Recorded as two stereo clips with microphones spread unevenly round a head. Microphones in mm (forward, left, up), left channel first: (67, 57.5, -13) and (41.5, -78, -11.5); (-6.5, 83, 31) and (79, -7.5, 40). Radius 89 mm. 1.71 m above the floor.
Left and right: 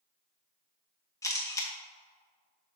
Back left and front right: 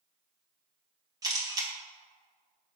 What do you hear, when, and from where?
1.2 s a camera shutter: 10° left, 1.9 m